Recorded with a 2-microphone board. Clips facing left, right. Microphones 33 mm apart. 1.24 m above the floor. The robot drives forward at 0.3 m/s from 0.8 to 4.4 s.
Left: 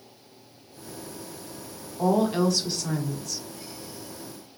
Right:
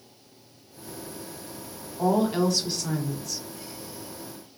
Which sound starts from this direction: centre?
A woman speaking, at 2.0 s.